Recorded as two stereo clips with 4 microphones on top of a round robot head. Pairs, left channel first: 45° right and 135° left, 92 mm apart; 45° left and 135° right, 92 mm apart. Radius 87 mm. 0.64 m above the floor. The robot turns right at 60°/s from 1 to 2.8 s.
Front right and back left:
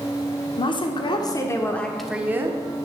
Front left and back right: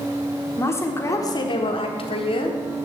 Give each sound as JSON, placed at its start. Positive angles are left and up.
{"t": 0.6, "sound": "a woman speaking", "azimuth_deg": -15, "distance_m": 1.6}